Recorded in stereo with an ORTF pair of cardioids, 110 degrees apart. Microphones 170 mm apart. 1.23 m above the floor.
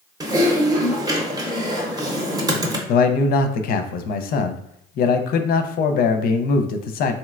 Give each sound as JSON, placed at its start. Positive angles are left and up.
{"t": 0.2, "sound": "typing on a keyboard", "azimuth_deg": -20, "distance_m": 0.7}
{"t": 2.9, "sound": "a man speaking", "azimuth_deg": 60, "distance_m": 0.5}